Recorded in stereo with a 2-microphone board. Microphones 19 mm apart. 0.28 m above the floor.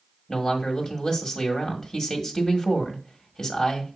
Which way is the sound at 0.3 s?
25° left (ahead or behind).